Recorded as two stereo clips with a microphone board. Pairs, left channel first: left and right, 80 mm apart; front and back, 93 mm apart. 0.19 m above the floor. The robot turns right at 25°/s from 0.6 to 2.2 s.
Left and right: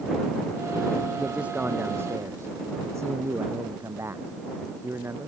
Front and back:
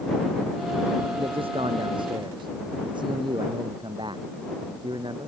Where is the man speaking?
170° right; by 5.3 s 145° right.